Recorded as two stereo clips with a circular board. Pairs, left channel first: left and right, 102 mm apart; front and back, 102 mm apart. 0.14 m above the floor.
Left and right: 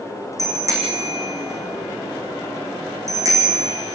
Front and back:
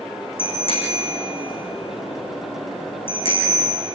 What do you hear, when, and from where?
0.4 s a bicycle bell: 30° right, 5.5 m